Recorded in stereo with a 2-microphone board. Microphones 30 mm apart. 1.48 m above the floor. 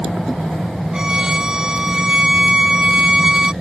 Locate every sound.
0.9 s a violin: 25° right (ahead or behind)